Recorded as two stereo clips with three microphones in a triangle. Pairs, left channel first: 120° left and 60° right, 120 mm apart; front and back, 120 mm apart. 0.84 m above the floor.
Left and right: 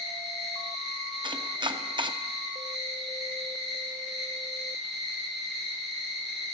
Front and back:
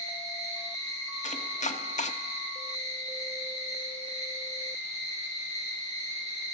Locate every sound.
0.0 s an insect: 150° right, 4.5 m
1.2 s chopping: 10° right, 0.6 m